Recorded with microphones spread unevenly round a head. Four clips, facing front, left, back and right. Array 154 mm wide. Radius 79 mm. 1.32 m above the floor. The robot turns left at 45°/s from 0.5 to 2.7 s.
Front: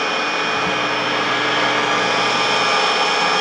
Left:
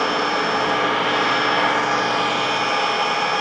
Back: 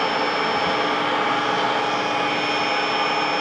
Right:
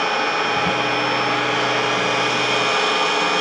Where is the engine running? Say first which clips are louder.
Even, even; 95° left, 1.2 m; by 3.4 s 5° right, 1.2 m.